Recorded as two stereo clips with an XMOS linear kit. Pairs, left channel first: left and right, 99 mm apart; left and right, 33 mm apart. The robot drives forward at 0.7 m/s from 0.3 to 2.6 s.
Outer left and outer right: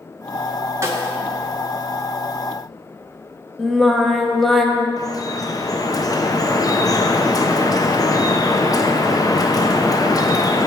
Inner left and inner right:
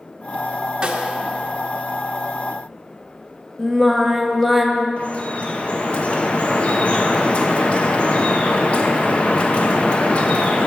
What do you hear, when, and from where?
0.8 s a snare drum: 30° right (ahead or behind), 1.1 m
3.6 s singing: centre (ahead or behind), 0.9 m
5.0 s dripping: 35° left (ahead or behind), 0.8 m